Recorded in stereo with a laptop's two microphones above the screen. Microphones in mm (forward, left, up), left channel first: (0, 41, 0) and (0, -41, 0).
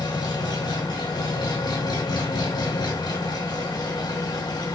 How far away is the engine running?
About 2.0 m.